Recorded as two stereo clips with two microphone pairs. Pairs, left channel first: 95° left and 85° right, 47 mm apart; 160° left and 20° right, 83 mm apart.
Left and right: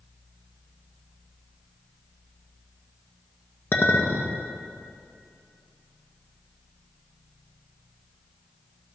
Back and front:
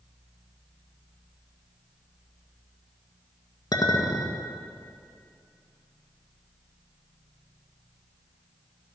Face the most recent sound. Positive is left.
turn(degrees=125)